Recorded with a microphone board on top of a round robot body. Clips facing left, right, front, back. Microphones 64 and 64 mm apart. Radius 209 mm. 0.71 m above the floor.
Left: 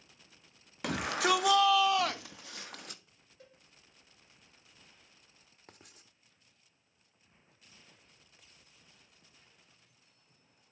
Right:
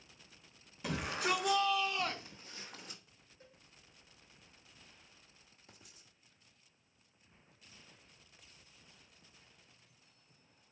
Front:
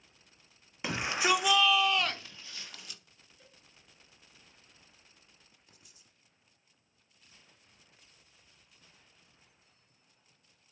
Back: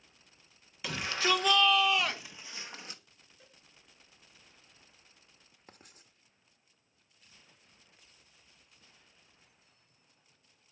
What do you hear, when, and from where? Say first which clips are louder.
0.8 s a shout: left 6 dB, front 2 dB; 65° left, 1.9 m; by 3.0 s 120° left, 1.8 m
3.4 s a cowbell: left 3 dB, even; 95° left, 6 m
5.7 s writing: left 5 dB, back 7 dB; 135° left, 1.1 m